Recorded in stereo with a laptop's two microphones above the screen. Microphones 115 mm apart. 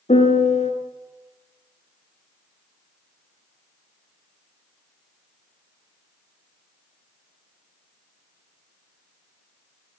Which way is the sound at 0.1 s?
75° left (ahead or behind).